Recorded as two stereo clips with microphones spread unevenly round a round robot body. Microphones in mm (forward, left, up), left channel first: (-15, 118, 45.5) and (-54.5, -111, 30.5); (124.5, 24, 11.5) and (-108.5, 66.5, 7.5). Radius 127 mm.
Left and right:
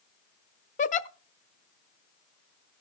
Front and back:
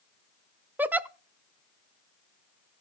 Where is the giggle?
90° left, 0.5 m.